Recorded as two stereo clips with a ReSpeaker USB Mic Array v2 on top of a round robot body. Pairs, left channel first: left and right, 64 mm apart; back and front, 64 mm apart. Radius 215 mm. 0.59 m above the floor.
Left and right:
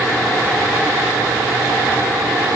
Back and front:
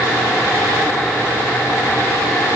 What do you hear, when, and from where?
Only background noise.